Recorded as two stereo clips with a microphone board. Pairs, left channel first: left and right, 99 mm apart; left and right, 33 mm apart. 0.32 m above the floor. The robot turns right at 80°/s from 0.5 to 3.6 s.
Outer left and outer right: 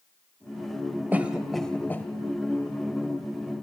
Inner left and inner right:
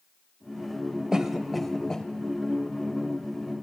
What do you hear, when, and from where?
1.1 s a cough: 20° right (ahead or behind), 1.0 m; by 2.1 s 25° left (ahead or behind), 1.0 m